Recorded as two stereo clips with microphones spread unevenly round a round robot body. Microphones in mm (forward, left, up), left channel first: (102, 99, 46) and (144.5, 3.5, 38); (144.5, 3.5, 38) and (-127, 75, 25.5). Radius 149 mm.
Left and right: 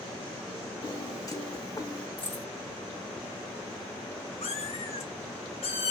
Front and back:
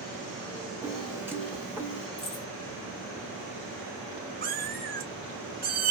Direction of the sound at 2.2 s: 40° left.